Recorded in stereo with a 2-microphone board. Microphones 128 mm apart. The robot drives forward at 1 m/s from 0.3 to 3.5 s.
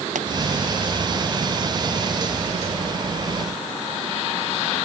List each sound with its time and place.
0.1 s a pop: 90° right